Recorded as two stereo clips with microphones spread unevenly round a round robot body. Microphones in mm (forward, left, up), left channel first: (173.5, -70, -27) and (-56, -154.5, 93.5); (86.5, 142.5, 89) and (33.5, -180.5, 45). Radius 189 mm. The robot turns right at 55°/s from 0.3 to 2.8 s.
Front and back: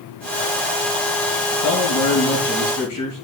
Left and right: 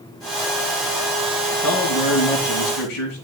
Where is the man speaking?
50° left, 3.5 m; by 3.2 s 115° left, 3.5 m.